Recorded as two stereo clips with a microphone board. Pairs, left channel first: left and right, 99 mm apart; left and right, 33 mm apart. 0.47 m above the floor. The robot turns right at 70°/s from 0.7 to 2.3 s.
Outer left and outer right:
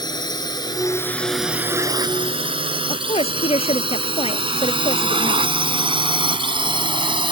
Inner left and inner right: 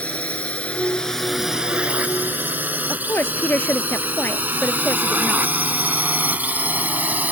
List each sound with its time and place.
0.0 s a drone: 45° left (ahead or behind); by 7.3 s 55° right (ahead or behind)
2.9 s a woman speaking: 80° left